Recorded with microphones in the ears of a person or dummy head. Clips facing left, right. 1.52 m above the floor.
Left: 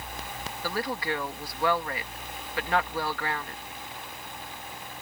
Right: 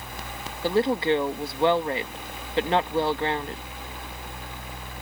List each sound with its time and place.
0.6 s a woman speaking: 30° right (ahead or behind)